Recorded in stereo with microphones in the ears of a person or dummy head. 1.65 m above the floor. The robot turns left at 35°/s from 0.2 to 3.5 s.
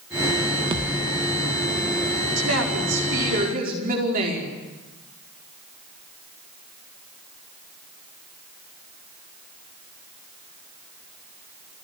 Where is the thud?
25° right (ahead or behind), 1.3 m; by 1.1 s 15° right (ahead or behind), 1.3 m.